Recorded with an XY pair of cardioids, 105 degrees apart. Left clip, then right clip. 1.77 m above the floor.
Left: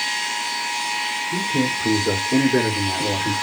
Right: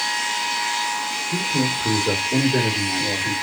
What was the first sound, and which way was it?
A man speaking, 15° left.